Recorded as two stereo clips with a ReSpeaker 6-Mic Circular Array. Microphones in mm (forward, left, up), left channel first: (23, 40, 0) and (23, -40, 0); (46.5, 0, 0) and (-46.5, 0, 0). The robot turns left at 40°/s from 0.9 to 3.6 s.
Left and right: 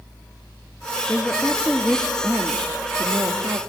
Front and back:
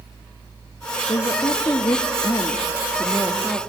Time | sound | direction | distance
1.1 | a woman speaking | 15° left | 0.8 m